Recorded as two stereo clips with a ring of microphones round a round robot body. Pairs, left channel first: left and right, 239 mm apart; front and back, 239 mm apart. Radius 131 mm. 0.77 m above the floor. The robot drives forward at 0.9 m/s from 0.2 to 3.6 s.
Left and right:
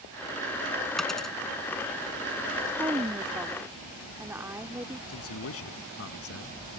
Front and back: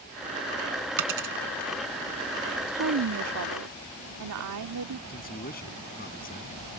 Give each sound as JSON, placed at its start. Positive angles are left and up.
{"t": 1.0, "sound": "a dropped coin", "azimuth_deg": 180}
{"t": 2.7, "sound": "a woman speaking", "azimuth_deg": -165}
{"t": 5.1, "sound": "a man speaking", "azimuth_deg": 60}